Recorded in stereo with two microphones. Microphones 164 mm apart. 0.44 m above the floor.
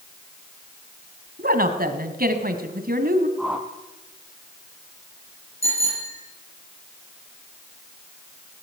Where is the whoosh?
5° right (ahead or behind), 2 m.